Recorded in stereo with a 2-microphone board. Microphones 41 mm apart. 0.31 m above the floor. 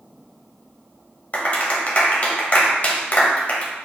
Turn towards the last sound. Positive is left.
turn(degrees=40)  # may be behind; listen again after turning